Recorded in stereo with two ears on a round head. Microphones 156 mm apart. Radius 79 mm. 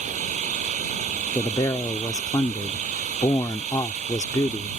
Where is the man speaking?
20° left (ahead or behind).